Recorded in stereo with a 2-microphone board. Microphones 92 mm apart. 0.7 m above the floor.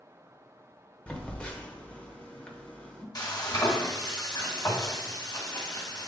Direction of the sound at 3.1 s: 45° left (ahead or behind).